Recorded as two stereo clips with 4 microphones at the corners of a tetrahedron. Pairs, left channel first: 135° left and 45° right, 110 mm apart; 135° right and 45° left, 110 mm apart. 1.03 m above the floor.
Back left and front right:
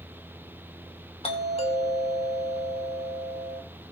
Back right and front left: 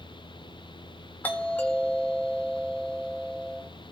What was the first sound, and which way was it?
A doorbell, 150° left.